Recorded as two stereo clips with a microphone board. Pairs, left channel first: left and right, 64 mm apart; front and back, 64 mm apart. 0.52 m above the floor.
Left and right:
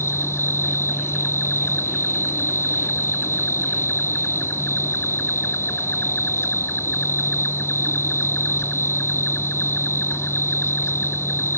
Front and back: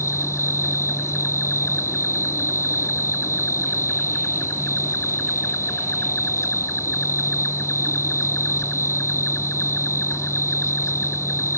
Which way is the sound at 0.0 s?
45° left.